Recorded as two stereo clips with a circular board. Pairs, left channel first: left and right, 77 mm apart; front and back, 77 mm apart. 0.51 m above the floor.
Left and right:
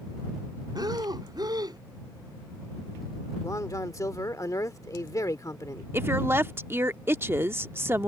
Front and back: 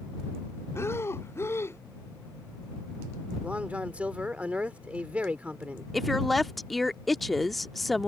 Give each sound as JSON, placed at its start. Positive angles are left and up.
{"t": 0.8, "sound": "breathing", "azimuth_deg": -55}
{"t": 3.4, "sound": "a man speaking", "azimuth_deg": 115}
{"t": 5.9, "sound": "a woman speaking", "azimuth_deg": -85}